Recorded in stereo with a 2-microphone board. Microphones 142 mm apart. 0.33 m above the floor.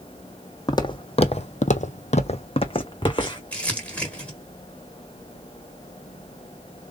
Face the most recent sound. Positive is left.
turn(degrees=10)  # may be behind; listen again after turning